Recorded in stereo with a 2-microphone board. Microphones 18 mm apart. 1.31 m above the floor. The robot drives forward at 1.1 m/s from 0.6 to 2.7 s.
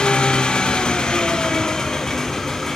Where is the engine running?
75° left (ahead or behind), 1.5 m; by 2.8 s 30° left (ahead or behind), 2.5 m.